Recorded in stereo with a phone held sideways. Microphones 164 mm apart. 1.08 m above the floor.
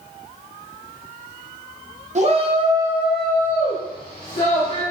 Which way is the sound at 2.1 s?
45° right (ahead or behind).